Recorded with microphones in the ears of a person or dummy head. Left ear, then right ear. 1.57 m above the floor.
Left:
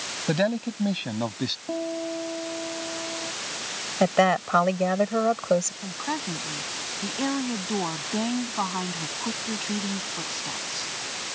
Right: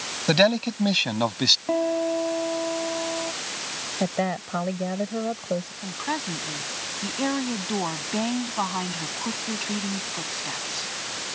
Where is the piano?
60° right (ahead or behind).